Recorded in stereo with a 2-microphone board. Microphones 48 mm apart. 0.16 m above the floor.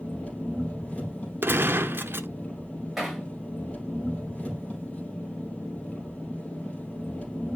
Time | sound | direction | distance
0.0 | an engine running | 25° left (ahead or behind) | 3.5 m
1.4 | a gunshot | 50° right (ahead or behind) | 0.7 m
3.0 | hammering | centre (ahead or behind) | 6.5 m